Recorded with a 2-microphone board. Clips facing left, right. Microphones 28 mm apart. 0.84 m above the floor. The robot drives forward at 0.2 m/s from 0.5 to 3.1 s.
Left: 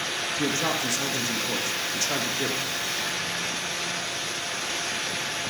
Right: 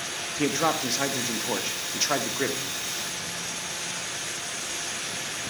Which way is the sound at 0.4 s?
35° right (ahead or behind).